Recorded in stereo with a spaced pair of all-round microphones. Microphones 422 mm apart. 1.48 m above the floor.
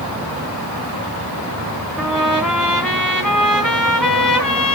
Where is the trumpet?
Centre (ahead or behind), 3 m.